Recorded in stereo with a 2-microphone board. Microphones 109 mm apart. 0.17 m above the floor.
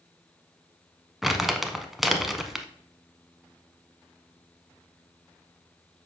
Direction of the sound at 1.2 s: Centre (ahead or behind).